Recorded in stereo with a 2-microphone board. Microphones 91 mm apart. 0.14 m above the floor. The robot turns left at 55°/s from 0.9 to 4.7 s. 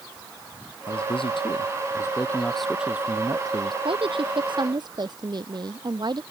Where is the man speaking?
95° left; by 3.8 s 60° right.